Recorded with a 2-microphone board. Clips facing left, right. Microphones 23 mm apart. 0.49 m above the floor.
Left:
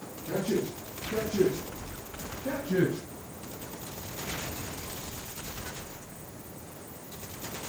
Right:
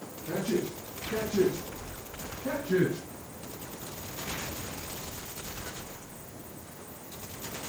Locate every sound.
0.2 s a man speaking: 20° right (ahead or behind), 5 m; by 3.0 s 45° right (ahead or behind), 5 m